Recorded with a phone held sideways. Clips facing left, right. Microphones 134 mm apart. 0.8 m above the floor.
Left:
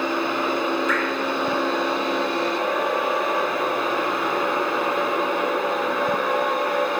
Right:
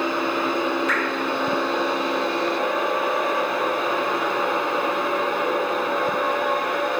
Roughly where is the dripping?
Right.